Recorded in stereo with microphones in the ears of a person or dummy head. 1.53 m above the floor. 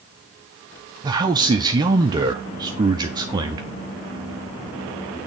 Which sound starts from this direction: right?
A man speaking, at 1.0 s.